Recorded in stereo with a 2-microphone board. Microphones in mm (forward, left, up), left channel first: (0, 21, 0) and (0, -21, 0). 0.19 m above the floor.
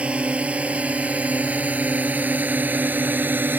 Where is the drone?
25° right (ahead or behind); by 3.6 s 45° right (ahead or behind).